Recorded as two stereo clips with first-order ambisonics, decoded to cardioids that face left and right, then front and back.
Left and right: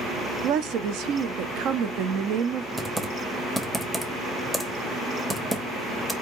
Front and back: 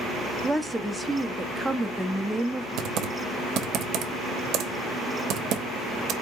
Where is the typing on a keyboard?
170° right, 0.9 m.